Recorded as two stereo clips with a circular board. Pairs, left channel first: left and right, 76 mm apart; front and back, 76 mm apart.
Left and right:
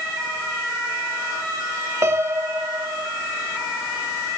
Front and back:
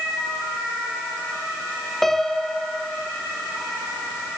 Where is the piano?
85° right, 1.2 m.